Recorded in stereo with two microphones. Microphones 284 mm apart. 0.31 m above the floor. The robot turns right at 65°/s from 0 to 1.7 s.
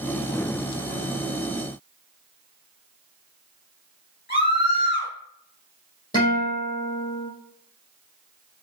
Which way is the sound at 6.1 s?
30° left (ahead or behind).